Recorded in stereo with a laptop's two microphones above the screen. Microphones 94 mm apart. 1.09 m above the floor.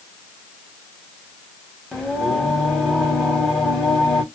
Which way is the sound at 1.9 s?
5° left (ahead or behind).